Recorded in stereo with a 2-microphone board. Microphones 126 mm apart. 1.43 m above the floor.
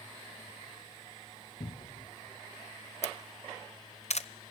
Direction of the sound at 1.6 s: 60° left (ahead or behind).